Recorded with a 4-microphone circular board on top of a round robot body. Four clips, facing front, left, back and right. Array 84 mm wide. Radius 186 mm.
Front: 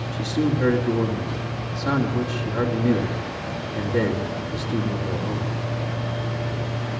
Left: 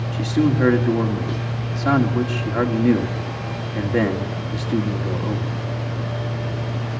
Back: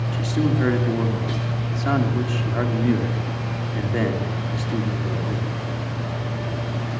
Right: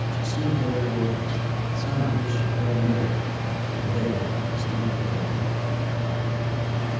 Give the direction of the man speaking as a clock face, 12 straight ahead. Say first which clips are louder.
Left 9 dB, even; 9 o'clock.